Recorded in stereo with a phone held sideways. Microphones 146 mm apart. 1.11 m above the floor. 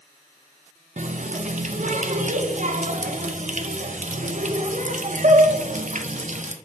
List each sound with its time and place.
1.0 s a running tap: 60° right (ahead or behind), 0.5 m